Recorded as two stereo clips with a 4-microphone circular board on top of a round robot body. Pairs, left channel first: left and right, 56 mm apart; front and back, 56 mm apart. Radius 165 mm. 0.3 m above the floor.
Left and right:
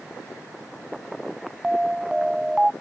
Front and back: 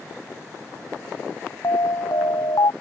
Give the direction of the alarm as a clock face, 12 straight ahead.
12 o'clock.